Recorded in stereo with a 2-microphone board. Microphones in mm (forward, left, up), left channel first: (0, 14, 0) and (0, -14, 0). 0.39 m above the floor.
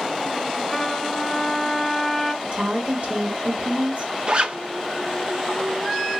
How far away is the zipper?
About 0.9 m.